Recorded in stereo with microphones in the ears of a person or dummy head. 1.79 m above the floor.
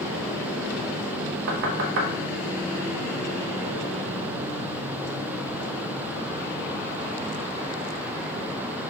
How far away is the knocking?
About 0.6 m.